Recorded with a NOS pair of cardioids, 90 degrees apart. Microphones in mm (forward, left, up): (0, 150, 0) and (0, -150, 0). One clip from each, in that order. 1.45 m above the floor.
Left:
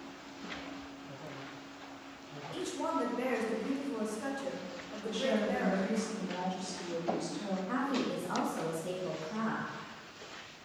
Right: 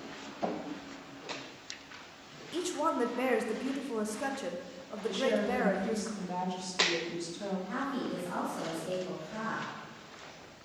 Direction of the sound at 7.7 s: 50° left.